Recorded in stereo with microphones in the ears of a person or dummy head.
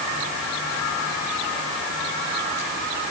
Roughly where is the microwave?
No microwave in this recording.